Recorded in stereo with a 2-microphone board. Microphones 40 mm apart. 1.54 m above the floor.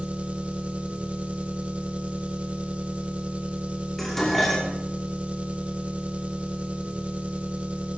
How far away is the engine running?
About 1.0 m.